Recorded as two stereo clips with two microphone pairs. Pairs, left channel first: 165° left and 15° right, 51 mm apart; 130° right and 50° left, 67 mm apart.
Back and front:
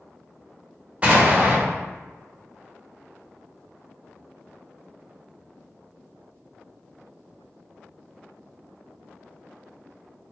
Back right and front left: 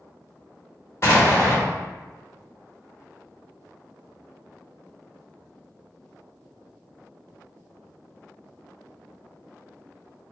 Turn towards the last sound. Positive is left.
turn(degrees=-80)